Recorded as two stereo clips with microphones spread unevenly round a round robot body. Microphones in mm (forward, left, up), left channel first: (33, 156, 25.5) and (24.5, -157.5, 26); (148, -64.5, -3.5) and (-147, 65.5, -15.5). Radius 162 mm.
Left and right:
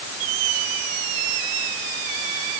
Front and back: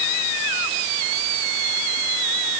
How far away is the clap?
I don't hear a clap.